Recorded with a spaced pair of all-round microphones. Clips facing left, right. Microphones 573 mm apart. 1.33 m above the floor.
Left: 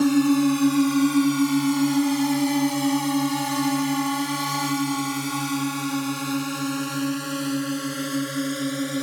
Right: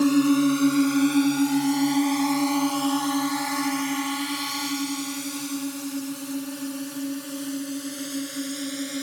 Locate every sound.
0.0 s a drone: 15° left (ahead or behind); by 9.0 s 70° left (ahead or behind)